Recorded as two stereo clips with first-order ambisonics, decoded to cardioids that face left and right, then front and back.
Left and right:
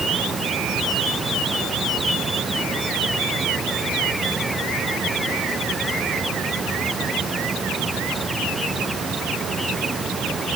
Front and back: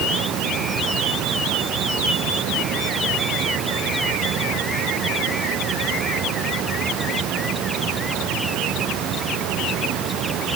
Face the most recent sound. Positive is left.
No sound to turn to.